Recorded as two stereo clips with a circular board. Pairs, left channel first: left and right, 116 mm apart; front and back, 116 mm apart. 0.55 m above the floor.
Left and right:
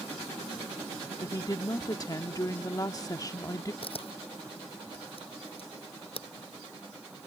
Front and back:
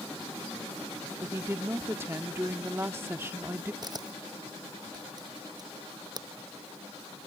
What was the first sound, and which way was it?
A woman speaking, 125° left.